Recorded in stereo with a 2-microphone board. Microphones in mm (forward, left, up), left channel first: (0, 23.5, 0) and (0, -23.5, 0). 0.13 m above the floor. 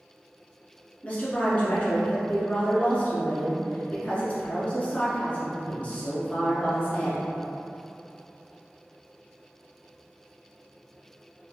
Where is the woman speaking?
30° left (ahead or behind), 1.2 m.